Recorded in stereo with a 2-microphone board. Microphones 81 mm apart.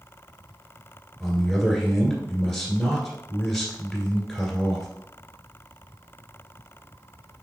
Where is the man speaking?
5° left (ahead or behind), 1.6 m.